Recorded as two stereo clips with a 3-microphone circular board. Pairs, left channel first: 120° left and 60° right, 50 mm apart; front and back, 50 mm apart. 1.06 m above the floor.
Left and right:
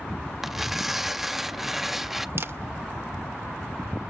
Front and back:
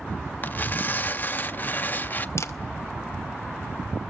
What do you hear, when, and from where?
0.4 s tearing paper: 25° left, 0.5 m
2.4 s a camera shutter: 25° right, 0.7 m